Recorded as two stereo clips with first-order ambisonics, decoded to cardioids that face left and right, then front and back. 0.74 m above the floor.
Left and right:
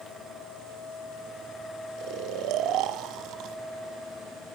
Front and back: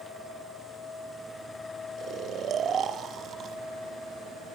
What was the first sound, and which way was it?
Snoring, 125° right.